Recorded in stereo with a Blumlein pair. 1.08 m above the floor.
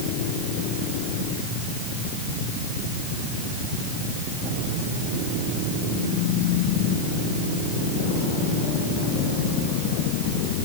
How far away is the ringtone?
No ringtone in this recording.